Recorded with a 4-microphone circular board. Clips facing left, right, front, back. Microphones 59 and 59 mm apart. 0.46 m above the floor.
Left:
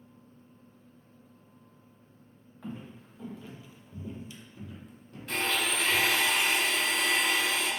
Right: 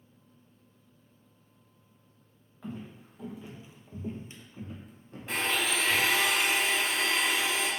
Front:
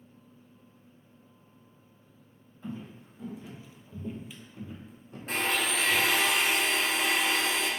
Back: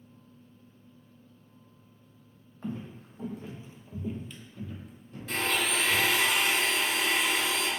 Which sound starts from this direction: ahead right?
A blender, at 5.3 s.